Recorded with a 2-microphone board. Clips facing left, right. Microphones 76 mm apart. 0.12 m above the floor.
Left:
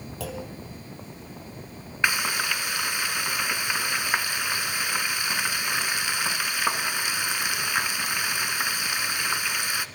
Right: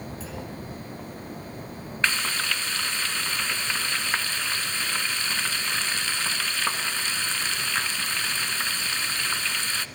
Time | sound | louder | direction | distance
0.2 | a clunk | left 2 dB | 65° left (ahead or behind) | 4 m
2.0 | frying | left 2 dB | 15° left (ahead or behind) | 1.4 m